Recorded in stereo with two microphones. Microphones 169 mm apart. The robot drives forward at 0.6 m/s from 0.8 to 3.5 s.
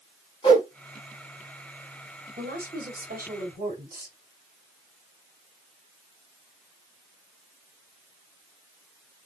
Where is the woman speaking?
70° right (ahead or behind), 2.5 m; by 4.2 s 60° right (ahead or behind), 3 m.